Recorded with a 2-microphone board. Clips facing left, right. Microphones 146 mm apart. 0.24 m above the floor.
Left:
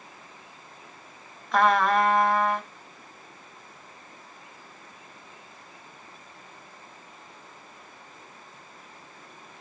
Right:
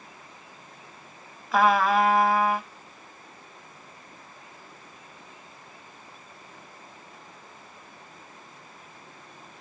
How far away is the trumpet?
About 1.0 m.